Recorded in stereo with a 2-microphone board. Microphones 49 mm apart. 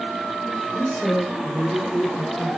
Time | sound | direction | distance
0.7 | a man speaking | 25° left (ahead or behind) | 7 m